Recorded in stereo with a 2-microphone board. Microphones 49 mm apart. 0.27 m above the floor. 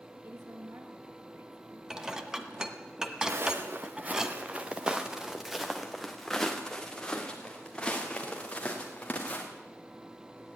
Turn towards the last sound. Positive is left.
turn(degrees=25)  # may be behind; listen again after turning